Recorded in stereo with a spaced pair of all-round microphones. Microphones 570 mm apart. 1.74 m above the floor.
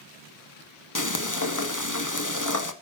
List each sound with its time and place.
0.9 s frying: 30° left (ahead or behind), 1.6 m